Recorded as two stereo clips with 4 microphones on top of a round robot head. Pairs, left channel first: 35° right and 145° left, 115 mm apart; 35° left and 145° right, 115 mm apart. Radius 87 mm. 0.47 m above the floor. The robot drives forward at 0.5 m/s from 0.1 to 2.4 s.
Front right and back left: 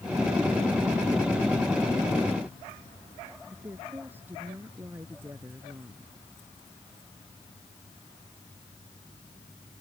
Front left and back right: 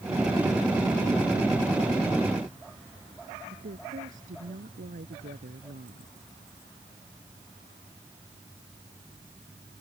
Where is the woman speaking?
140° right.